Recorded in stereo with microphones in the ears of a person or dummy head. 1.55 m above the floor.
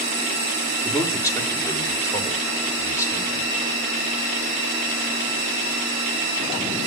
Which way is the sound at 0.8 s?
20° left (ahead or behind).